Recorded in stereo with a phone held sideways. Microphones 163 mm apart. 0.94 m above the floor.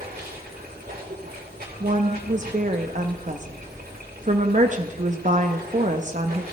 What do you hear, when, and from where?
0.0 s running water: 70° right (ahead or behind), 3.5 m
1.8 s a woman speaking: 50° right (ahead or behind), 0.8 m